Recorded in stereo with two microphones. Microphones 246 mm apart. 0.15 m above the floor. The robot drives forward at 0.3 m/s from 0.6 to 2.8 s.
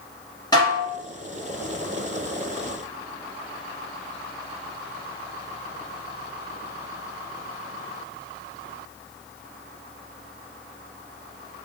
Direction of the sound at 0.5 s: 15° left (ahead or behind).